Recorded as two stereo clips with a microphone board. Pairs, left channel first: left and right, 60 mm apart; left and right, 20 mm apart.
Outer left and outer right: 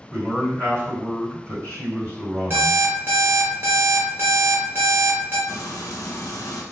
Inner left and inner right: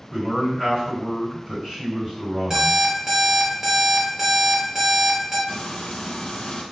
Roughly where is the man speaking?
Right.